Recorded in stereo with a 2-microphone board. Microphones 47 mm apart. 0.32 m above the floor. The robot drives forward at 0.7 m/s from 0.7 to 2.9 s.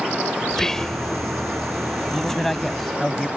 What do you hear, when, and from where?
0.5 s whispering: 10° left (ahead or behind)
2.1 s a man speaking: 5° left (ahead or behind)